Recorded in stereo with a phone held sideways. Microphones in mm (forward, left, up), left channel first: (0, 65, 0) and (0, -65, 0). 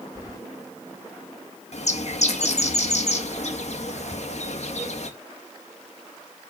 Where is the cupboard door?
35° left (ahead or behind), 3 m.